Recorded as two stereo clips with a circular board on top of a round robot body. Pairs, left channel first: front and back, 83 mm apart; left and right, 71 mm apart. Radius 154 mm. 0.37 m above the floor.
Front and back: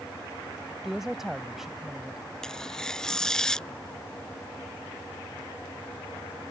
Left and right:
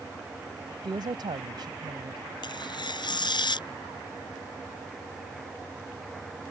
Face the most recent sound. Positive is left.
turn(degrees=85)